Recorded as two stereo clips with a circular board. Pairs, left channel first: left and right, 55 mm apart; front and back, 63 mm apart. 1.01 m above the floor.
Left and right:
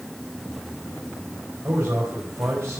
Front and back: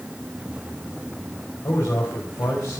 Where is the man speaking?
45° right, 5 m.